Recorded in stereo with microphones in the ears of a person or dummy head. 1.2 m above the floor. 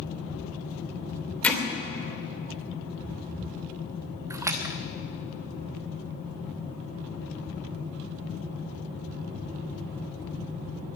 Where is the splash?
10° right (ahead or behind), 1.0 m.